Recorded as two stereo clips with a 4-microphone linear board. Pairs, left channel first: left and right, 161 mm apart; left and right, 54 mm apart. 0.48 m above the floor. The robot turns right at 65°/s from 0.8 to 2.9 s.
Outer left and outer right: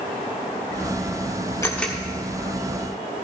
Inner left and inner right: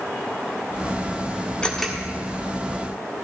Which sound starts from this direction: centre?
A camera shutter, at 1.6 s.